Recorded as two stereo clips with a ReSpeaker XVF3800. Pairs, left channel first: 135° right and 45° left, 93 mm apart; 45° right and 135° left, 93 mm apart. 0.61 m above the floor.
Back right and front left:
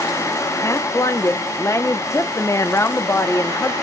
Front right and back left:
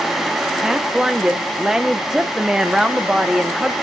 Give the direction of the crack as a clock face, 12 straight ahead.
No crack in this recording.